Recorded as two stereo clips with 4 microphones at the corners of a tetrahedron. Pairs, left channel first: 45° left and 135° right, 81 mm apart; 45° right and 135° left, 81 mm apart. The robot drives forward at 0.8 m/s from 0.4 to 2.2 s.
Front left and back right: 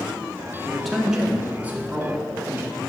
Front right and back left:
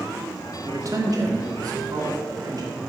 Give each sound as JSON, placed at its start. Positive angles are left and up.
{"t": 0.7, "sound": "a man speaking", "azimuth_deg": 125, "distance_m": 1.1}